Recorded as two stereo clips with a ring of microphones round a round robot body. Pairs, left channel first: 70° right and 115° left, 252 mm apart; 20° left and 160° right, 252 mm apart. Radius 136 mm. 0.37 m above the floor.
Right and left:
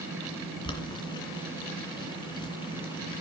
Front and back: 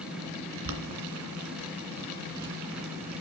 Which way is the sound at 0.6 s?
140° right.